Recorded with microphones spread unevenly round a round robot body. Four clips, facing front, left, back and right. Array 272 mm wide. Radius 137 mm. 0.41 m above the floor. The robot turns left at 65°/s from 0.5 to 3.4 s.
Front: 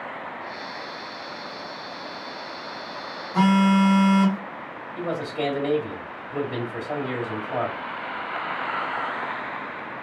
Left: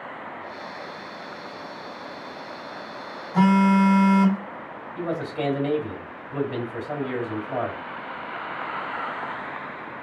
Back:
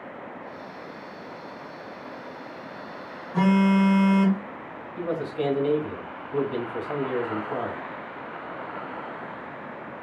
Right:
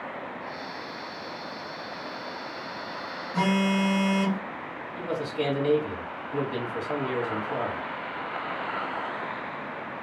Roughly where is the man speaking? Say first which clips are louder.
Left 2 dB, even; ahead left.